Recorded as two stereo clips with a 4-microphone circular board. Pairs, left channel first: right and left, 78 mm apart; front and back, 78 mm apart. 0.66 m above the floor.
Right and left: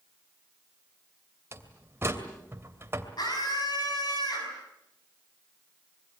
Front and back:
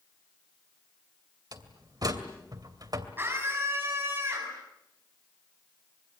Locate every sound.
1.5 s a door slam: 150° left, 2.5 m
3.2 s a scream: 120° right, 5.5 m